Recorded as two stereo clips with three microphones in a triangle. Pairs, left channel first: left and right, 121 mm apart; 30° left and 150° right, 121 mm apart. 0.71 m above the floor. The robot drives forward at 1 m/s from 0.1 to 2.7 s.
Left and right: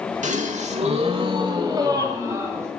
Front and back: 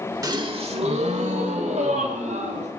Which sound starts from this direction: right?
A gasp, at 0.2 s.